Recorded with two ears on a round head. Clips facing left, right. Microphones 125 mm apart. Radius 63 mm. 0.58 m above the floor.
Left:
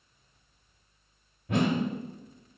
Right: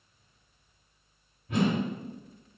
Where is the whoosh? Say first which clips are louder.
Even; 50° left (ahead or behind), 0.8 m.